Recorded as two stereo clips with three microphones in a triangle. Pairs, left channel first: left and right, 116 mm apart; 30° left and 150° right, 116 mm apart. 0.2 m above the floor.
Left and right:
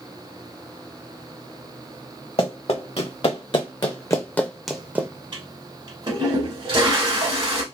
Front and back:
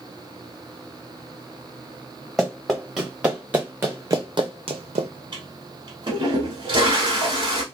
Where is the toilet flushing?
115° right, 1.0 m.